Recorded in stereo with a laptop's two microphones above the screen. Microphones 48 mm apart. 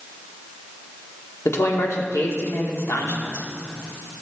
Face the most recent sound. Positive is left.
turn(degrees=75)  # may be behind; listen again after turning